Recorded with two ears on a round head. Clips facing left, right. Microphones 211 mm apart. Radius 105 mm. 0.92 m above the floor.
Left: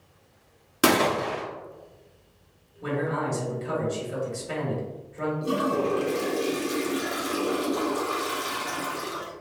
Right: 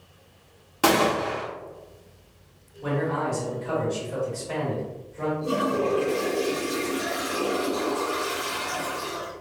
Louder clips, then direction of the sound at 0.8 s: Even; 25° left (ahead or behind).